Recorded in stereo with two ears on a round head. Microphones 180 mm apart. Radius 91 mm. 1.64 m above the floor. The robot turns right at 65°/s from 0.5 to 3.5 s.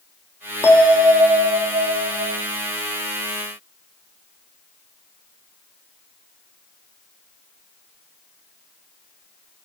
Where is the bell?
165° left, 0.8 m; by 2.4 s 80° right, 0.8 m.